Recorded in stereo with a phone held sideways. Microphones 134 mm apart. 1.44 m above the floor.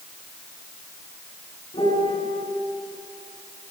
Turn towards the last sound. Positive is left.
turn(degrees=45)  # may be behind; listen again after turning